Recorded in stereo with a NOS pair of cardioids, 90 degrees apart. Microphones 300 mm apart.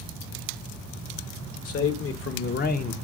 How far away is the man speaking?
About 1.2 m.